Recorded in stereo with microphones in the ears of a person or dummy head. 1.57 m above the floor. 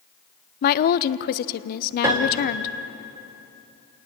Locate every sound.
0.6 s a woman speaking: 45° left (ahead or behind), 0.7 m
2.0 s a piano: 15° right (ahead or behind), 1.3 m